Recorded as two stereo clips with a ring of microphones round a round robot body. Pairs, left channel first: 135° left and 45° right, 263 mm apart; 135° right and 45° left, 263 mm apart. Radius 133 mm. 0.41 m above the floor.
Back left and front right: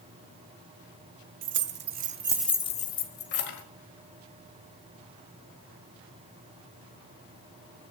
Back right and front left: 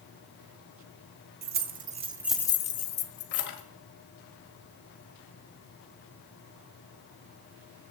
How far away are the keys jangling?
About 1.5 m.